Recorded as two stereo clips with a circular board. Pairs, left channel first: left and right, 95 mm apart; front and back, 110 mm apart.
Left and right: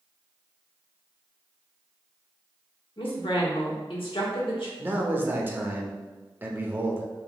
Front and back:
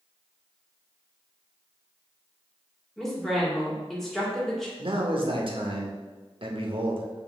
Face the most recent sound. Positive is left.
turn(degrees=-155)